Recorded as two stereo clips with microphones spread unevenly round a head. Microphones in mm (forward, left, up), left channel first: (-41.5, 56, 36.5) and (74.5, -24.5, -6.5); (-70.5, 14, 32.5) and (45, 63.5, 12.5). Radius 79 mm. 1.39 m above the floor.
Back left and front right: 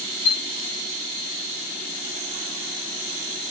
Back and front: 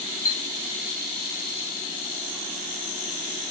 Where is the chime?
175° right, 1.0 m.